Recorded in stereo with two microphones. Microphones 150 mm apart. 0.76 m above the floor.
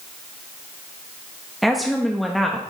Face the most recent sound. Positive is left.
turn(degrees=0)  # may be behind; listen again after turning